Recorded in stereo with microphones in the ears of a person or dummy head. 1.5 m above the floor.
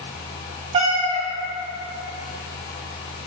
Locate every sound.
0.7 s a cat meowing: 40° right (ahead or behind), 1.6 m